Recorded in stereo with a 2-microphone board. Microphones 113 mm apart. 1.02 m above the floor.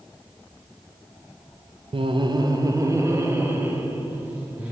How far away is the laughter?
About 0.5 m.